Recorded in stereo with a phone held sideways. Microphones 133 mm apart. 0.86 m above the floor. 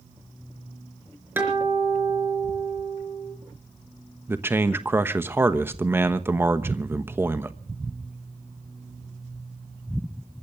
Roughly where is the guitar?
Centre.